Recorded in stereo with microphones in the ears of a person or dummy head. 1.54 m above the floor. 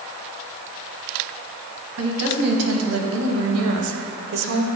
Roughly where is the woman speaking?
Right.